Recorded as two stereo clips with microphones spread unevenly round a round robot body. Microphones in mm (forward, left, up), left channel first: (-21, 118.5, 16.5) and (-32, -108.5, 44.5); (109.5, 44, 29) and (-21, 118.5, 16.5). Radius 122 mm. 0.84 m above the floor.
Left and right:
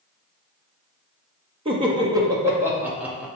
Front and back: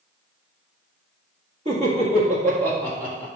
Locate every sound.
1.6 s laughter: 160° right, 1.6 m; by 3.3 s straight behind, 2.5 m